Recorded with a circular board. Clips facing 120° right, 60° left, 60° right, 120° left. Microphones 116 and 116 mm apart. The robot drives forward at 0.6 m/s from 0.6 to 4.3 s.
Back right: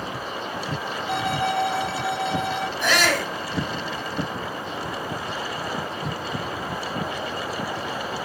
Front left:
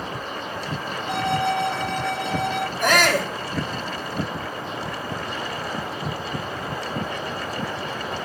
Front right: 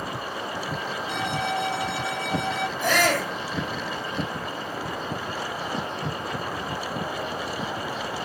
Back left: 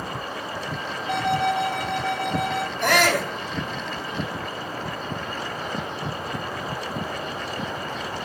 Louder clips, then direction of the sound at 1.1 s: Front left 2 dB, back left 7 dB; 150° left.